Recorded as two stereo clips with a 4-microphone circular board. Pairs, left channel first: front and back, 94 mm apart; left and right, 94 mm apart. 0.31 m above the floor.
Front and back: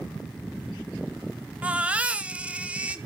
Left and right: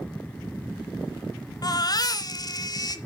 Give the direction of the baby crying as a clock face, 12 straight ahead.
8 o'clock.